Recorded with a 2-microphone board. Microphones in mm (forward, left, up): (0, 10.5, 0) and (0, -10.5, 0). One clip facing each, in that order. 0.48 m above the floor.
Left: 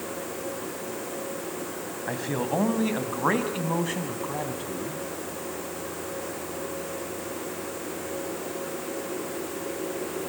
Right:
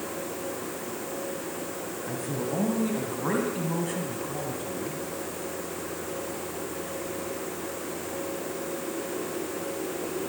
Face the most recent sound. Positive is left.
turn(degrees=20)  # may be behind; listen again after turning